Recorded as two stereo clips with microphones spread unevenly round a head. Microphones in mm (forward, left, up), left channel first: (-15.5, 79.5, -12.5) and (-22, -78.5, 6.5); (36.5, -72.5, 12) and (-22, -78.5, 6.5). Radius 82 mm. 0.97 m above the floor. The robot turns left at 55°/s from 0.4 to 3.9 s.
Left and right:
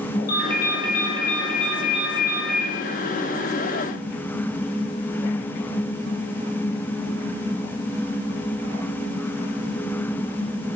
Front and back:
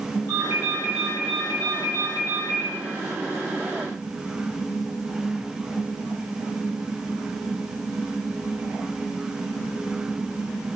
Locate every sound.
0.3 s a ringtone: 115° left, 1.6 m; by 2.7 s 10° right, 1.6 m